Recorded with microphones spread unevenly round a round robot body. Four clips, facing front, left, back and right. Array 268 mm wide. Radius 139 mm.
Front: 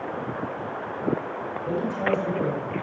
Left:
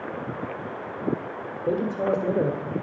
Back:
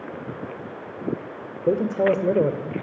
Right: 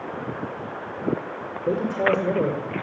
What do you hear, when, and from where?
1.7 s a man speaking: 175° right, 2.0 m